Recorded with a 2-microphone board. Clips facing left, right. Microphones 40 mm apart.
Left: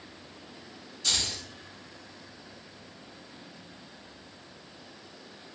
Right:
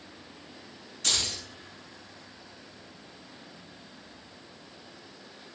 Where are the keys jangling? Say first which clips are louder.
Right 1 dB; 50° right (ahead or behind), 1.1 m.